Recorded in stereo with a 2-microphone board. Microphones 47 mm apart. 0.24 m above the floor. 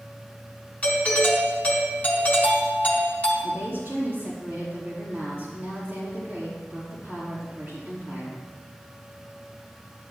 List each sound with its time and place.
0.8 s a doorbell: 30° left (ahead or behind), 3.5 m
3.4 s a woman speaking: 40° right (ahead or behind), 5 m